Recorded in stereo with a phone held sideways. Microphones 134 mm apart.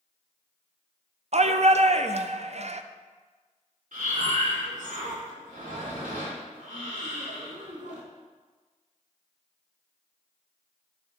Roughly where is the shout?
Right.